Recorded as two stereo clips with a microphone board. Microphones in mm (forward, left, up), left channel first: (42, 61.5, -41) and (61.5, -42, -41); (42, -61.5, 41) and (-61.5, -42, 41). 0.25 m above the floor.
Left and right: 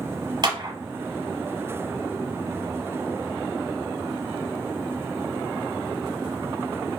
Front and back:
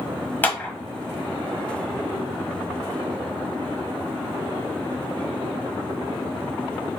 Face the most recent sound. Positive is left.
turn(degrees=-80)